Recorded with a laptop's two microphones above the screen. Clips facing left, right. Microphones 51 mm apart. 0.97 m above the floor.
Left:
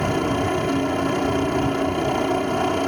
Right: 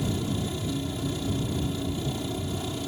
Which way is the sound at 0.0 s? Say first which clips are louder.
Left 9 dB; 55° left (ahead or behind).